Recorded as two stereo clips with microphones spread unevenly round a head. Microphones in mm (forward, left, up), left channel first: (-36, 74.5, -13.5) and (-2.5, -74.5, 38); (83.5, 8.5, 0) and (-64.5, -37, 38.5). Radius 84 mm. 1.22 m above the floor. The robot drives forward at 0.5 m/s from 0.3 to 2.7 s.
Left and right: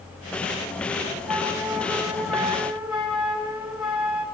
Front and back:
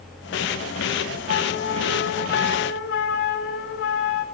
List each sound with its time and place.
1.3 s a flute: 5° left, 4.5 m